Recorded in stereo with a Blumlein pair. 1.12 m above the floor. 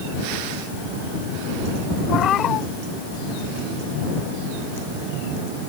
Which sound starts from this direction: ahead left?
A cat meowing, at 2.1 s.